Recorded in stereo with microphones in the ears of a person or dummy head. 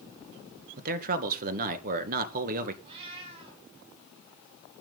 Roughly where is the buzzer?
No buzzer in this recording.